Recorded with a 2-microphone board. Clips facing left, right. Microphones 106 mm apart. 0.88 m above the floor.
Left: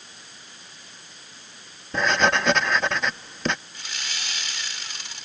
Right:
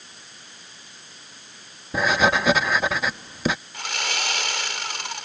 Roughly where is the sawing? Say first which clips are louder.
Right 8 dB; right.